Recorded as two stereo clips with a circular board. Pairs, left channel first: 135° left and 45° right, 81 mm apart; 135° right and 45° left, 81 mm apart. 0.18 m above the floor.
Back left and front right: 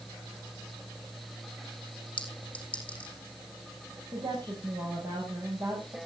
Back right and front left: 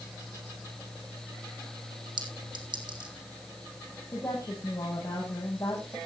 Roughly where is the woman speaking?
Right.